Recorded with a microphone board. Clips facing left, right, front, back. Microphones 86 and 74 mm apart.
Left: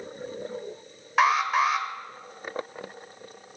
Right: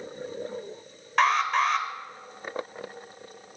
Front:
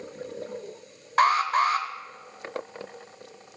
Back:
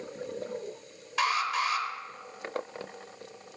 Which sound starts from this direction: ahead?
An alarm, at 1.2 s.